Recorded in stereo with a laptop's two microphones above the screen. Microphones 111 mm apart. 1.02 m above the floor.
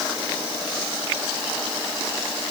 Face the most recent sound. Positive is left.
No sound to turn to.